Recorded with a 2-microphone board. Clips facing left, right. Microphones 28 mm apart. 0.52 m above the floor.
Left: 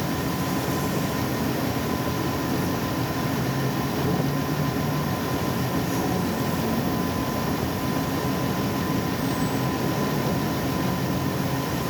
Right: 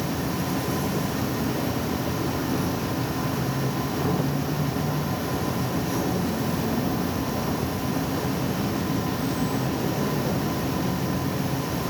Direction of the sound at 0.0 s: 40° right (ahead or behind).